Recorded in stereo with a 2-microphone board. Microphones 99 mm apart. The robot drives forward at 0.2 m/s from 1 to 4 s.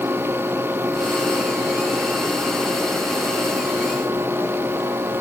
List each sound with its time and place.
Only background noise.